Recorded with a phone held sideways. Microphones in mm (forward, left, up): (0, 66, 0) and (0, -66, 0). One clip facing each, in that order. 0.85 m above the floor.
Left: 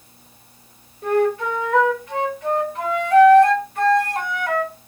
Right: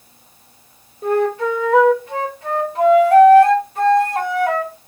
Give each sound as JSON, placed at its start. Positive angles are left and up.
{"t": 1.0, "sound": "a flute", "side_deg": -25, "distance_m": 1.5}